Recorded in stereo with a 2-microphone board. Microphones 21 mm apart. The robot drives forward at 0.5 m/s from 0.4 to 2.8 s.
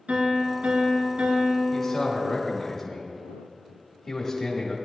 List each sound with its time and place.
0.1 s a piano: 80° right, 2.5 m; by 2.7 s 60° right (ahead or behind), 3 m
1.7 s a man speaking: 30° left (ahead or behind), 2 m; by 4.8 s 40° left (ahead or behind), 1.6 m